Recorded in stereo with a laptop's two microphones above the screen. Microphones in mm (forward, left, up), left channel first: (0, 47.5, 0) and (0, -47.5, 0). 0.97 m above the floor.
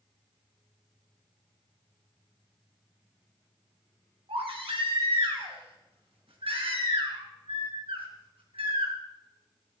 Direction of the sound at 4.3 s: 80° right.